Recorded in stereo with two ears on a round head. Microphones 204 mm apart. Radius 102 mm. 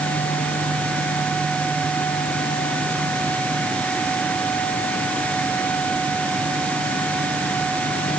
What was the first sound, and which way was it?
Only background noise.